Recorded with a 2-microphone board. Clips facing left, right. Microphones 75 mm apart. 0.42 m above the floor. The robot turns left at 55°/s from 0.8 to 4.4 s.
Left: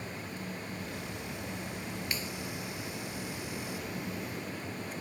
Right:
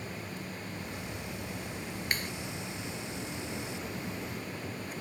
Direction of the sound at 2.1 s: 55° right (ahead or behind).